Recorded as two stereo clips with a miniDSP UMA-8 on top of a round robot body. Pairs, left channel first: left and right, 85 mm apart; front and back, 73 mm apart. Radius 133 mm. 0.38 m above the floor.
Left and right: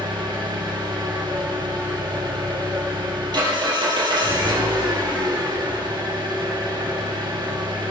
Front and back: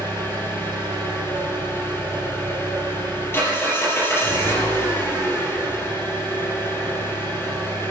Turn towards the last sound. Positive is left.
turn(degrees=-60)